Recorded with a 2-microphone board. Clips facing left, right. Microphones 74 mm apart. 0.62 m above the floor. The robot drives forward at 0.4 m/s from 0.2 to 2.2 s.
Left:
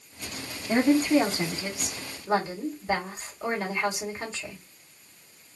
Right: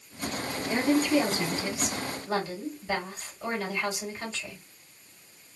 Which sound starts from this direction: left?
A woman speaking, at 0.7 s.